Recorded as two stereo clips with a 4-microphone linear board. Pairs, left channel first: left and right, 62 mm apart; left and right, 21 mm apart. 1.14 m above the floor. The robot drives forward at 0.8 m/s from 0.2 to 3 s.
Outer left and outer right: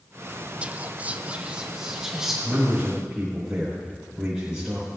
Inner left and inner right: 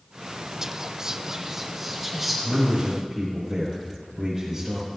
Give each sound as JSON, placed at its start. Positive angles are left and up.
{"t": 0.6, "sound": "whispering", "side_deg": -20, "distance_m": 0.6}
{"t": 2.4, "sound": "a man speaking", "side_deg": -15, "distance_m": 5.0}